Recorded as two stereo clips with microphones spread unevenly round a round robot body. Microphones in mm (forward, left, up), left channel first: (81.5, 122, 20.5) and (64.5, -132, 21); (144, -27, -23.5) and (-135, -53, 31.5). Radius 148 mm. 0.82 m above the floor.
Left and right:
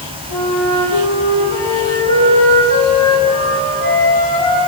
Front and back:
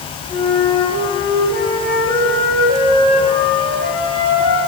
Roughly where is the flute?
Left.